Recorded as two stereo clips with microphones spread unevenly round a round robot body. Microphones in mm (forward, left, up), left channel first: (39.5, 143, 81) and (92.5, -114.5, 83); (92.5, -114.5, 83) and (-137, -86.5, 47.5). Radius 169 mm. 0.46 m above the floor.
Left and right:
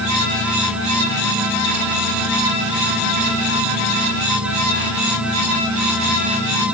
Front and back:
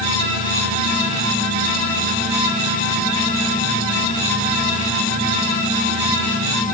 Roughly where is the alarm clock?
I don't hear an alarm clock.